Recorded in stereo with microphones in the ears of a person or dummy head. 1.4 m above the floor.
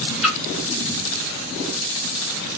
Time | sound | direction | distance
0.2 | a splash | 5° left (ahead or behind) | 0.8 m